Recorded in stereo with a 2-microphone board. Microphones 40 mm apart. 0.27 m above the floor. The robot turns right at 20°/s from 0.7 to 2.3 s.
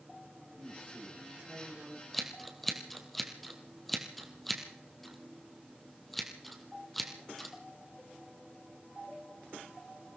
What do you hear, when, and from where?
0.6 s a man speaking: 45° right (ahead or behind), 9.5 m; by 2.0 s 20° right (ahead or behind), 9.5 m
2.1 s scissors: centre (ahead or behind), 2.5 m; by 7.5 s 5° left (ahead or behind), 2.5 m